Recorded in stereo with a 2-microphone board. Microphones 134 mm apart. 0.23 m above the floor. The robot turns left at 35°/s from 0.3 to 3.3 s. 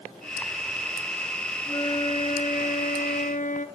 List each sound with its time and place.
1.6 s a flute: 145° left, 1.6 m; by 3.7 s 90° left, 1.6 m